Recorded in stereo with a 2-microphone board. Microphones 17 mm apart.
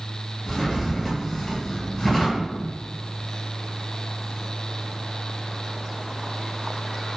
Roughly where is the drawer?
Left.